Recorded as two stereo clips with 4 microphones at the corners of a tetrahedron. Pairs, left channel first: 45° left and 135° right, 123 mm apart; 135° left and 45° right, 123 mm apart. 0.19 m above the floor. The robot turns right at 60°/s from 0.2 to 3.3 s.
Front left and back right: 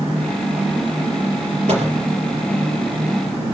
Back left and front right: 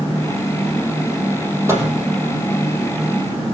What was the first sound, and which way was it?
A microwave, 115° right.